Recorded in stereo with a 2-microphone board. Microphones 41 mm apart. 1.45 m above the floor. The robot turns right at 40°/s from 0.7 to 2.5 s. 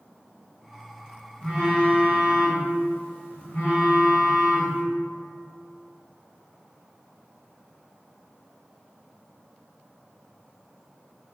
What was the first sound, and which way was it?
A phone buzzing, 10° left.